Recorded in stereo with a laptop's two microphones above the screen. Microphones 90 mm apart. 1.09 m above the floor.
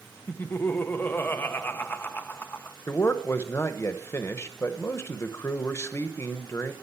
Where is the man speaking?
30° left (ahead or behind), 0.9 m.